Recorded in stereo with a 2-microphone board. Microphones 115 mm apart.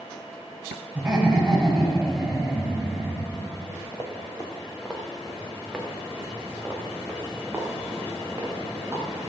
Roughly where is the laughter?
Centre.